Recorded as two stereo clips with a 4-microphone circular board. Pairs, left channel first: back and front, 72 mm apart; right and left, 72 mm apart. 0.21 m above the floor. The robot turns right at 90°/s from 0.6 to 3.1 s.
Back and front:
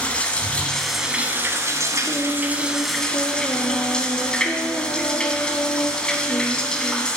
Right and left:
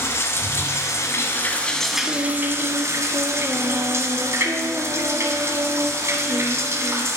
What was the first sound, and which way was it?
Running water, 120° right.